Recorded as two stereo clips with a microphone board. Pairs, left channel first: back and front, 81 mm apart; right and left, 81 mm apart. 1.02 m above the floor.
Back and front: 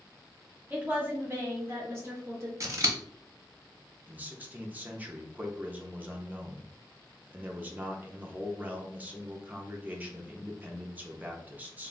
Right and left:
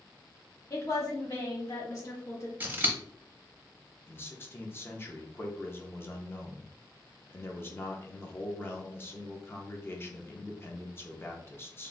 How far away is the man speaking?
About 0.6 m.